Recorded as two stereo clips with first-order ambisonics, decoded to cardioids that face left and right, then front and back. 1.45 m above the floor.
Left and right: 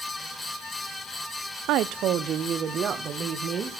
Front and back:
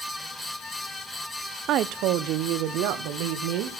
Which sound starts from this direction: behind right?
A woman speaking, at 1.7 s.